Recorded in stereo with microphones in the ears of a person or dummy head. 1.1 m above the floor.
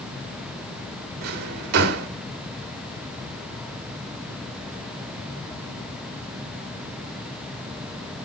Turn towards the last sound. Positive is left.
turn(degrees=-60)  # may be behind; listen again after turning